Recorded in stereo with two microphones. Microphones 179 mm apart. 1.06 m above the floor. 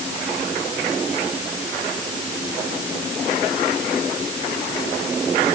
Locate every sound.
Only background noise.